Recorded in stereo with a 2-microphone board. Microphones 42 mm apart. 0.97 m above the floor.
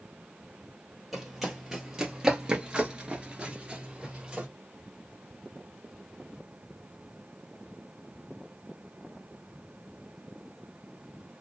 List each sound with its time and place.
1.1 s running footsteps: 5° right (ahead or behind), 1.5 m; by 4.5 s 20° right (ahead or behind), 1.4 m